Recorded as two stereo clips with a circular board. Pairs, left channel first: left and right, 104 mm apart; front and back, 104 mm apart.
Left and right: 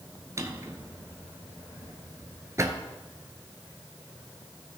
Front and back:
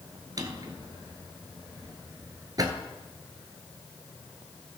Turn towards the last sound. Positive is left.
turn(degrees=-140)